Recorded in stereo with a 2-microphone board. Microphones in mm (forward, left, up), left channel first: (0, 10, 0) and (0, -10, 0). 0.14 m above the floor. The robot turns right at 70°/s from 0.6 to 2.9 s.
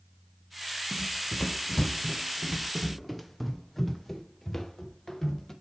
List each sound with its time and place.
0.9 s running footsteps: 65° left (ahead or behind), 0.8 m; by 5.5 s 15° left (ahead or behind), 2.5 m